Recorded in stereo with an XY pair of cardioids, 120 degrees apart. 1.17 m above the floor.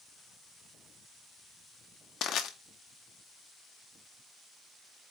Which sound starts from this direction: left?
Crushing, at 2.2 s.